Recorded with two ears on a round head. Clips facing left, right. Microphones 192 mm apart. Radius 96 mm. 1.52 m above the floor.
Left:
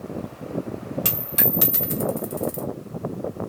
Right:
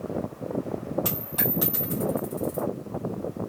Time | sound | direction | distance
1.1 | a dropped coin | 30° left (ahead or behind) | 0.9 m